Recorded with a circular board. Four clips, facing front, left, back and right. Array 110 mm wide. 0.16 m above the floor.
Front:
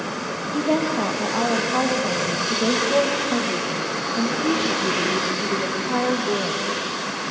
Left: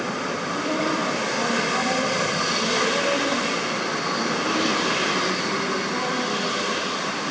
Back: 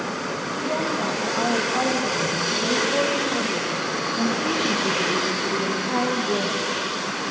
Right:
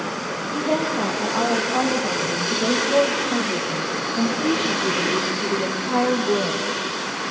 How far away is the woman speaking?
About 5 m.